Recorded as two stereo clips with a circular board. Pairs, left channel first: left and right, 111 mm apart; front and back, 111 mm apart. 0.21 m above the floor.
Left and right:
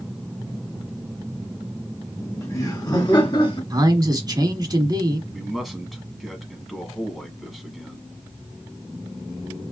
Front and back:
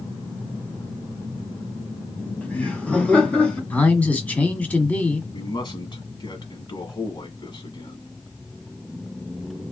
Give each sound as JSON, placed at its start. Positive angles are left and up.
{"t": 2.2, "sound": "laughter", "azimuth_deg": 55, "distance_m": 1.5}
{"t": 3.7, "sound": "a man speaking", "azimuth_deg": -70, "distance_m": 1.3}
{"t": 5.3, "sound": "a man speaking", "azimuth_deg": 0, "distance_m": 1.4}